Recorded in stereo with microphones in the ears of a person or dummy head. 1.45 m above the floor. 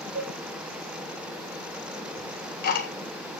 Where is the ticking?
55° left (ahead or behind), 1.4 m.